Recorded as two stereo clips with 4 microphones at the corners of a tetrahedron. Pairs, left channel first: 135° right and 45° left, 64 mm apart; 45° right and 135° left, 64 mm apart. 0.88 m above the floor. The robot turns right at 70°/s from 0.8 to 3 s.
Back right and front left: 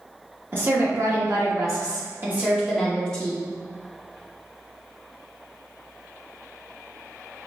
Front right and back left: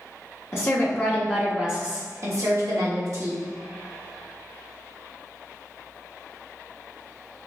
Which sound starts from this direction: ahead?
A woman speaking, at 0.5 s.